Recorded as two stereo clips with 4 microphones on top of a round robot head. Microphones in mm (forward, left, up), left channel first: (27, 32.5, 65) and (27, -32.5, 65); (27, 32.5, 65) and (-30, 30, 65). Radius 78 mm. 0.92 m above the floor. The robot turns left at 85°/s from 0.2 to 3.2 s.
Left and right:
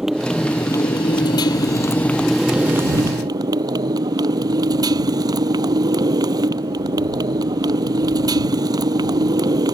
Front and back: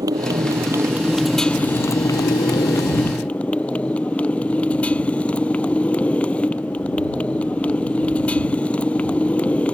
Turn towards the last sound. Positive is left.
turn(degrees=-70)